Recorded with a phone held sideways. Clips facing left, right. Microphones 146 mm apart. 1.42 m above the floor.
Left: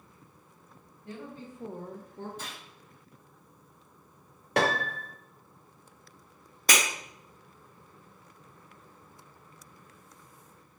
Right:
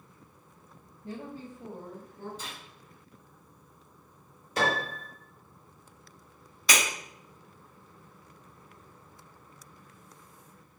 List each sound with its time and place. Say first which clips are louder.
1.0 s a woman speaking: right 2 dB; 30° right (ahead or behind), 0.7 m; by 2.3 s 80° left, 0.9 m
2.4 s a gunshot: even; 60° left (ahead or behind), 1.6 m
4.6 s a piano: left 2 dB; 70° left (ahead or behind), 0.6 m
6.7 s breaking glass: left 1 dB; 50° left (ahead or behind), 1.0 m